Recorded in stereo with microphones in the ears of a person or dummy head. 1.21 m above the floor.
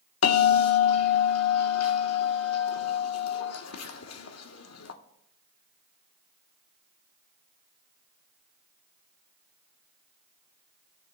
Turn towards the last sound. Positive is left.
turn(degrees=80)